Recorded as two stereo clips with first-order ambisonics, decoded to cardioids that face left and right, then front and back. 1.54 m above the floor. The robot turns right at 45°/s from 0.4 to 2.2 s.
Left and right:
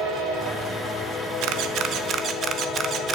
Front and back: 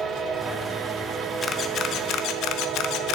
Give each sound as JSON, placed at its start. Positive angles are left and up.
{"t": 1.4, "sound": "a camera shutter", "azimuth_deg": -65, "distance_m": 0.9}